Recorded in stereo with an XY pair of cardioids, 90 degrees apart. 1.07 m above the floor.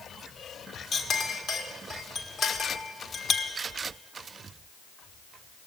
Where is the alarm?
I don't hear an alarm.